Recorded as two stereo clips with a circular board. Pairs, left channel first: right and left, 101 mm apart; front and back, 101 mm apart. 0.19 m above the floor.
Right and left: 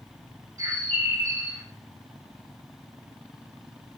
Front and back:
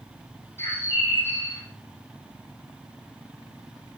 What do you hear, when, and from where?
0.6 s a bird: 55° left, 0.5 m